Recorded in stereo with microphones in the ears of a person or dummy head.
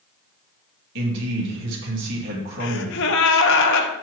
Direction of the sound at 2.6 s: 60° left (ahead or behind).